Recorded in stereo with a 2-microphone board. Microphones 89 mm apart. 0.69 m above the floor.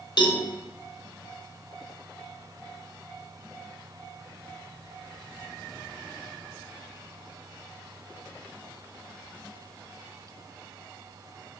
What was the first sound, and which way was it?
A cowbell, 55° left (ahead or behind).